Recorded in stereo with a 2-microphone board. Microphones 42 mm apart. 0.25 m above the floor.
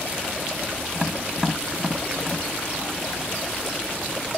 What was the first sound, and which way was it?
Tapping, 5° right (ahead or behind).